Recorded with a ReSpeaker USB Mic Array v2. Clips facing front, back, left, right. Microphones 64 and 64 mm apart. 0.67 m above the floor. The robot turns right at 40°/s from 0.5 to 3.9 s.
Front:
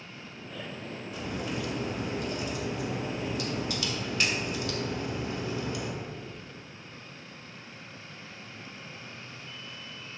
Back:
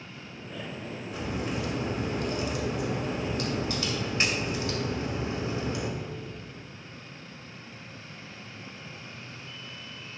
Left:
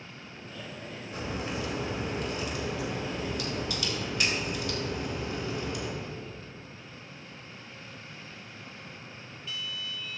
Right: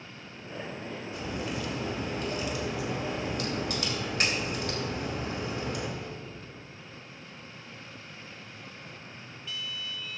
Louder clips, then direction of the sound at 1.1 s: Back 2 dB, left 1 dB; 130° left.